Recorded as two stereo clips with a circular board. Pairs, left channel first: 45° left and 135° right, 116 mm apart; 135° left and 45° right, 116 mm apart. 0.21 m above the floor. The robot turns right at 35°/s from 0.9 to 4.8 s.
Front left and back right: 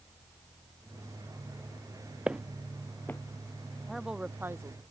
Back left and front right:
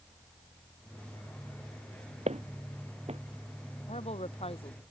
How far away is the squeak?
I don't hear a squeak.